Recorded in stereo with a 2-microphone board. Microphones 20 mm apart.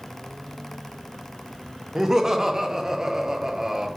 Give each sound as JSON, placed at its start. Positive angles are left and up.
{"t": 1.9, "sound": "laughter", "side_deg": -20, "distance_m": 0.6}